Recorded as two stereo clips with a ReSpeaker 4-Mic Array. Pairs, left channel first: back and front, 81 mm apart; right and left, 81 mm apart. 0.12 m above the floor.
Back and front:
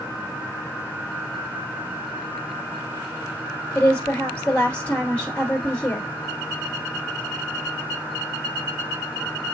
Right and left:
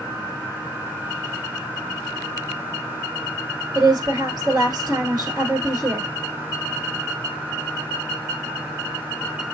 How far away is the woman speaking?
About 1.9 m.